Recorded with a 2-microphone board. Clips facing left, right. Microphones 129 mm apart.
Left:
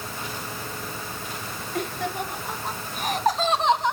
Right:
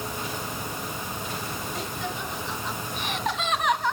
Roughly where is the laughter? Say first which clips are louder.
Left 8 dB; left.